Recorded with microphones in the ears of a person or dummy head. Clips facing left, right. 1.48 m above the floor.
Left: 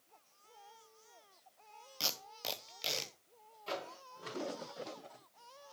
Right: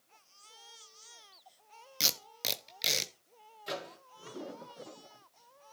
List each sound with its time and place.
2.0 s tape being pulled: 25° right (ahead or behind), 0.8 m
3.7 s a microwave: 15° right (ahead or behind), 2 m